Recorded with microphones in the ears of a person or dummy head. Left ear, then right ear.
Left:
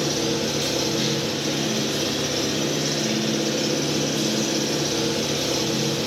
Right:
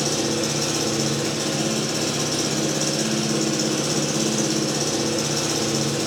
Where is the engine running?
50° right (ahead or behind), 5 m.